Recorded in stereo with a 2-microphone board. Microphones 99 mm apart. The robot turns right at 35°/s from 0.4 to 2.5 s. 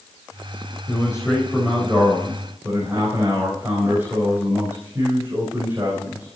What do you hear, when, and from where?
0.9 s a man speaking: 150° left, 4.5 m; by 6.4 s 155° right, 4.5 m